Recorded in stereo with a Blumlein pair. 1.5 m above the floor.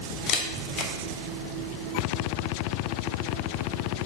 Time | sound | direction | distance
0.3 | a camera shutter | 30° left | 0.9 m